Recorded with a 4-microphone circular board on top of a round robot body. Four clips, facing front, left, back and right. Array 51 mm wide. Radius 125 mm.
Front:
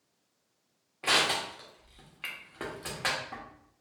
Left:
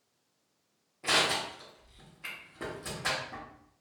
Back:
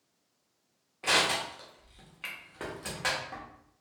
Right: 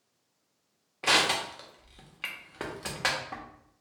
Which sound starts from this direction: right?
Crushing, at 1.0 s.